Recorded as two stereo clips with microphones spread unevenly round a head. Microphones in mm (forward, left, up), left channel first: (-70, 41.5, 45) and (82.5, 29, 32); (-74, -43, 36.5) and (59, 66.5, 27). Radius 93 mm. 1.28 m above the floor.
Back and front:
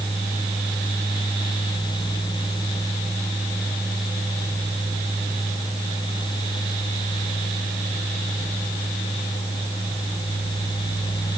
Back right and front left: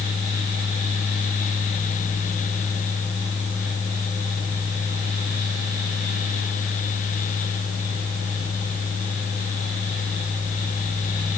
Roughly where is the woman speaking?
No woman speaking in this recording.